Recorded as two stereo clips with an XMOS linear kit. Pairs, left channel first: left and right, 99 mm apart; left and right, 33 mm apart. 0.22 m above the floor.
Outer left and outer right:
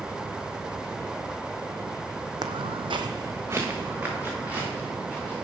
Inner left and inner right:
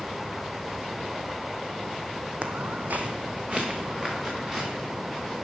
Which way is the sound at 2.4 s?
45° right (ahead or behind).